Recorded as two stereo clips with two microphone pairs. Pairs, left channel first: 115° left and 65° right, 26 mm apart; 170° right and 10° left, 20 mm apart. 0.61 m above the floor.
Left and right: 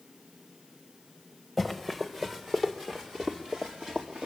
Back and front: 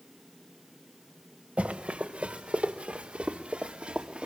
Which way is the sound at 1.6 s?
15° left.